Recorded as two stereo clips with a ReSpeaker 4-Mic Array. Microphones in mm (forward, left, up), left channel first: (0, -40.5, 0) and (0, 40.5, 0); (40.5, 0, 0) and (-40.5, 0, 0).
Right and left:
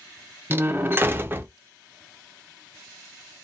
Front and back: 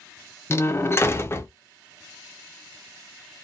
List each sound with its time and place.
0.5 s a door slam: 40° left, 0.5 m